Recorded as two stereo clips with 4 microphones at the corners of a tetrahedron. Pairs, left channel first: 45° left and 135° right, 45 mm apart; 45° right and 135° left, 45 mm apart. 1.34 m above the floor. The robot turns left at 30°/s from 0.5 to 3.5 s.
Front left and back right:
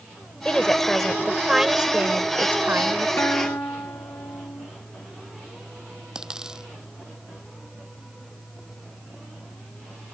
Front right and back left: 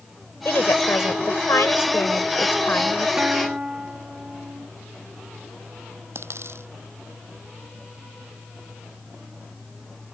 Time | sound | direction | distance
0.5 | a woman speaking | 25° right | ?
3.2 | a guitar | 75° left | ?
6.2 | a dropped coin | 150° left | ?